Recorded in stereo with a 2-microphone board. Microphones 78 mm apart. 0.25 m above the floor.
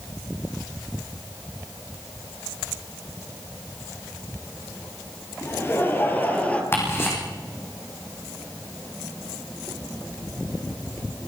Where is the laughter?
35° left (ahead or behind), 6 m; by 6.6 s 15° left (ahead or behind), 5.5 m.